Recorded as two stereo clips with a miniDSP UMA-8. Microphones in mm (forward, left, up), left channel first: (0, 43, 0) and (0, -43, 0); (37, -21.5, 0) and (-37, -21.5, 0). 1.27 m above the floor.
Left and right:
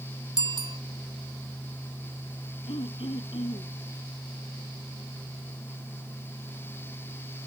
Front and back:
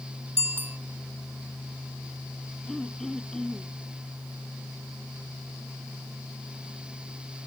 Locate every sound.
0.4 s a bicycle bell: 115° right
2.7 s throat clearing: 85° left